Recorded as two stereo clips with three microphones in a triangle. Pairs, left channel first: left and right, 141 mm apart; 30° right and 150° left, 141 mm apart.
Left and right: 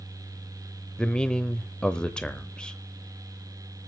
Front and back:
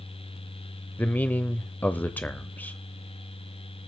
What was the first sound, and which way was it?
A man speaking, 15° left.